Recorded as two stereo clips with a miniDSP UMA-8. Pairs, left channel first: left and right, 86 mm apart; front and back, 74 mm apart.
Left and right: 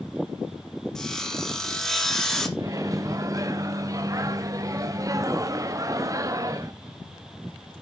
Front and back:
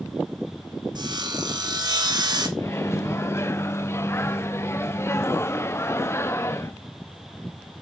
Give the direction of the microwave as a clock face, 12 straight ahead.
2 o'clock.